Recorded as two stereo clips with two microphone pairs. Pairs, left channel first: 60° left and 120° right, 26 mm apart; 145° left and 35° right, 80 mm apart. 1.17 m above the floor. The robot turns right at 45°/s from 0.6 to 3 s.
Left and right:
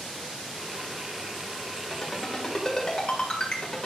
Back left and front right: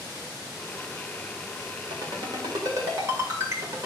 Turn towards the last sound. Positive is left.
turn(degrees=10)